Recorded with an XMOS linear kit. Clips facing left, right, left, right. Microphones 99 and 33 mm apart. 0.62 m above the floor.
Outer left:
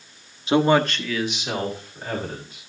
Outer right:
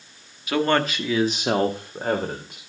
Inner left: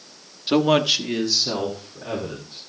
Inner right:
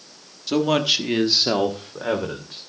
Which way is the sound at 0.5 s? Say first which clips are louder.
Outer left 3 dB, inner left 2 dB; 30° left (ahead or behind).